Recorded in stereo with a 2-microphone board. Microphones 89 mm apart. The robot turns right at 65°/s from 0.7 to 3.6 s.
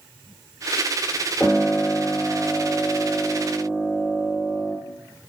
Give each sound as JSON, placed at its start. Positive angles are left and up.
{"t": 1.4, "sound": "a piano", "side_deg": 5, "distance_m": 0.9}